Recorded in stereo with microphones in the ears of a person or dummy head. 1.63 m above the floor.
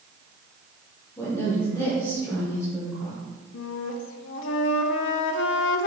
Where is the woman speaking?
10° left (ahead or behind), 1.7 m.